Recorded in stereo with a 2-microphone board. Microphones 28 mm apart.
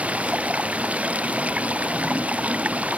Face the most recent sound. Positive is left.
turn(degrees=-60)  # may be behind; listen again after turning